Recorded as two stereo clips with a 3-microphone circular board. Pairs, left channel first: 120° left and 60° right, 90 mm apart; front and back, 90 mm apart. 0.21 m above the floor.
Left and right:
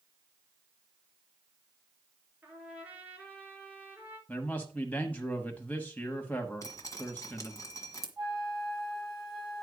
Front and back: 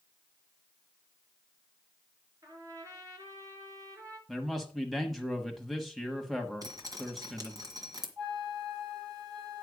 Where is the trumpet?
130° right, 3 m.